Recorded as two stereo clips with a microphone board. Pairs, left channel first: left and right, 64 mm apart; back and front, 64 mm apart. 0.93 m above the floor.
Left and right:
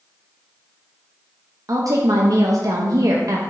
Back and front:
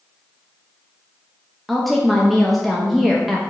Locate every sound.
1.7 s a woman speaking: 90° right, 0.6 m